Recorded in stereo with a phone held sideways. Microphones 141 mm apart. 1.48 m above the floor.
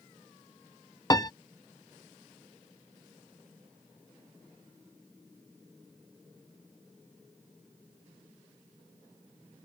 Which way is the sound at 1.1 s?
25° left (ahead or behind).